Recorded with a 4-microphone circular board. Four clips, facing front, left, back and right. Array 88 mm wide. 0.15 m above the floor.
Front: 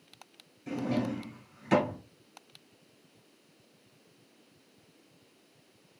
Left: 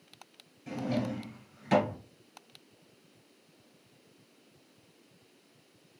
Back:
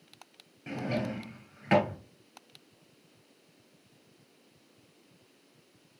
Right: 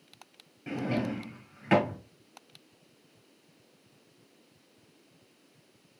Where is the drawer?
135° right, 1.7 m.